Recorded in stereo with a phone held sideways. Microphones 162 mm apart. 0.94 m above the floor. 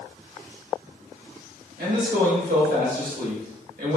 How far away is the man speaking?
About 1.6 m.